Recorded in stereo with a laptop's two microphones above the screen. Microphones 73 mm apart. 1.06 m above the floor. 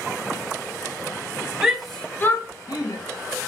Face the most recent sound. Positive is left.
turn(degrees=80)